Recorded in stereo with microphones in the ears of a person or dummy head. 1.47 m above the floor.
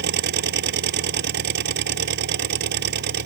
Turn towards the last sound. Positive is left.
turn(degrees=-60)  # may be behind; listen again after turning